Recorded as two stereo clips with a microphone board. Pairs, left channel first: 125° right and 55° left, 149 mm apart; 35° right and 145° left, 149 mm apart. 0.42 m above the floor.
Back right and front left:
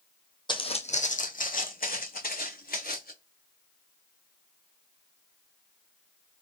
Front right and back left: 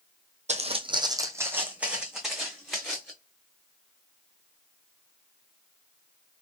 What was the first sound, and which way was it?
Footsteps, straight behind.